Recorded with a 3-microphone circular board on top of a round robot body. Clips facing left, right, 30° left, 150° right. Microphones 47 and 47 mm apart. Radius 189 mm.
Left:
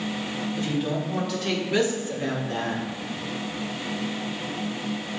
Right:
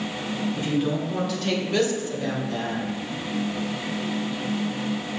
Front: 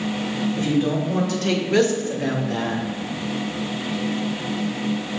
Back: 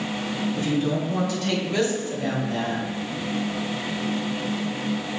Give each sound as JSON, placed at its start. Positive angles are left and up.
{"t": 0.6, "sound": "a woman speaking", "azimuth_deg": -15, "distance_m": 2.5}